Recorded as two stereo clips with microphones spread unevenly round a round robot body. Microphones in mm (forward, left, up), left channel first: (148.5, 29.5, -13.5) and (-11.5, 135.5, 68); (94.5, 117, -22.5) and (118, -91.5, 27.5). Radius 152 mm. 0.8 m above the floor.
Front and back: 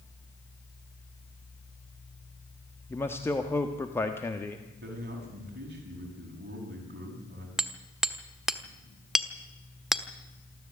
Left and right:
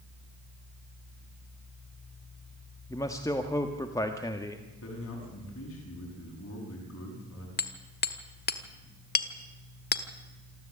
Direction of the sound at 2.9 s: 30° left.